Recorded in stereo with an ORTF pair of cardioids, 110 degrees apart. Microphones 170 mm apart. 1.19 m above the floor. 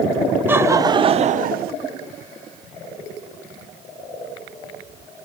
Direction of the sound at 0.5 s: 10° right.